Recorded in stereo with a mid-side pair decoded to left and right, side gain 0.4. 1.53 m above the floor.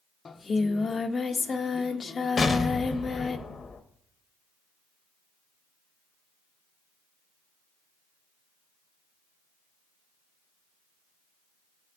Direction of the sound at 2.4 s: 35° left.